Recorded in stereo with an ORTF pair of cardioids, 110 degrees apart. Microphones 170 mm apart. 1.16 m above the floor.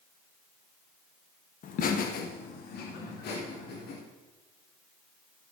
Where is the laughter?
55° left, 1.4 m; by 4.0 s 75° left, 3.5 m.